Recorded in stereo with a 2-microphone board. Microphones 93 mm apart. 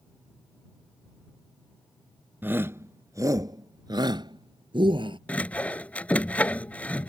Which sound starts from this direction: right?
A shout, at 2.4 s.